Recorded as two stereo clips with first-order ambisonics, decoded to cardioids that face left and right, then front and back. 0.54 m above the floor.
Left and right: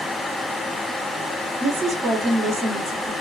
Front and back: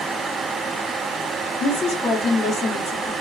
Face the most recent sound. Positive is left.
turn(degrees=-20)